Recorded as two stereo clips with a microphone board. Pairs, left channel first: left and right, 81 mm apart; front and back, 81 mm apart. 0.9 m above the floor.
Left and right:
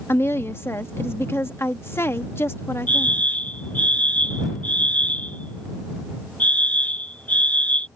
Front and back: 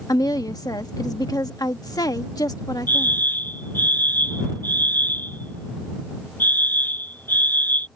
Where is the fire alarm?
35° left.